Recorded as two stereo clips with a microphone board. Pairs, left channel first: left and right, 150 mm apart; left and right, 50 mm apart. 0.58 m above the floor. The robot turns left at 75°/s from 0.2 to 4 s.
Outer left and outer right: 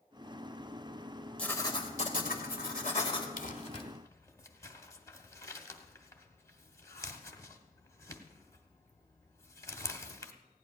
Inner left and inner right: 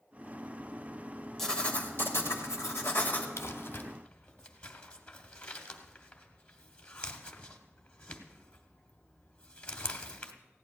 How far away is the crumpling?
About 1.2 m.